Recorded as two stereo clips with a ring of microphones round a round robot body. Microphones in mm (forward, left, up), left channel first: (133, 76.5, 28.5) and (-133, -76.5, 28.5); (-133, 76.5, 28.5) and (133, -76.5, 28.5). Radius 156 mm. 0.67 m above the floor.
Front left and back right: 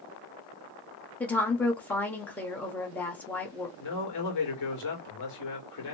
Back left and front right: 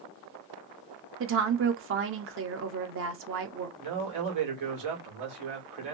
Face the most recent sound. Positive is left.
turn(degrees=0)